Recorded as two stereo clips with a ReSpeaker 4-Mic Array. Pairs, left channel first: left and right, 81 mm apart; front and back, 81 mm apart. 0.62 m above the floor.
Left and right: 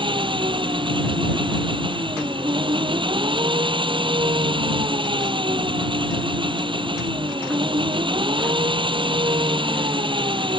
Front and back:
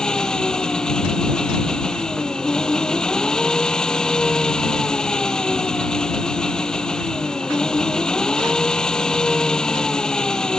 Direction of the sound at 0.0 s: 80° right.